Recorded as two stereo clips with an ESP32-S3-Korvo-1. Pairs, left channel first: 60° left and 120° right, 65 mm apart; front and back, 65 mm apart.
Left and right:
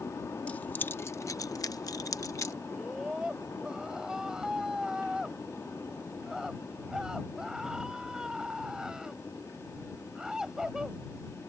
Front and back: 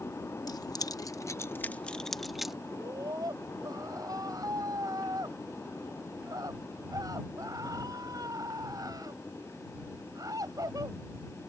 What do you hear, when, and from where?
0.5 s keys jangling: 10° right; by 2.5 s 95° left
2.7 s a scream: 160° left